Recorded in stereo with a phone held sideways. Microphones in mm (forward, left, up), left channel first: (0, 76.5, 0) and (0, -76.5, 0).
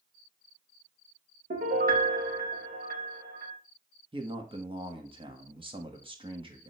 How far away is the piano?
About 1.1 m.